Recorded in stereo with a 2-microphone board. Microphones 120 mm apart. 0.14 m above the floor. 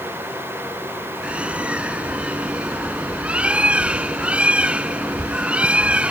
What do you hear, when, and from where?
1.2 s a bird: 10° right (ahead or behind)